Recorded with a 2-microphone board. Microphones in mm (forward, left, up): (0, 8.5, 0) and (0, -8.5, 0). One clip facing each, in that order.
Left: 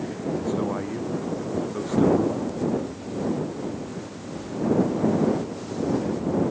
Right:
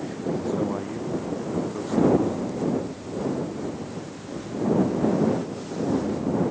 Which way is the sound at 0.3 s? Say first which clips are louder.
Left 1 dB; 10° left (ahead or behind).